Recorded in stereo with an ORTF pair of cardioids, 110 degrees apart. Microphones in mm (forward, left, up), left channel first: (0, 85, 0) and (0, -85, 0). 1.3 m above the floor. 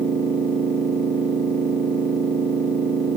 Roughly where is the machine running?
Ahead right.